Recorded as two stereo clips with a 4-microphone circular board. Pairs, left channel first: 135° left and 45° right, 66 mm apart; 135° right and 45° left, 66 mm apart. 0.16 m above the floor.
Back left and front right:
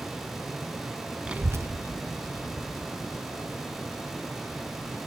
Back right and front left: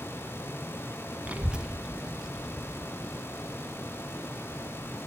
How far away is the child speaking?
About 0.6 m.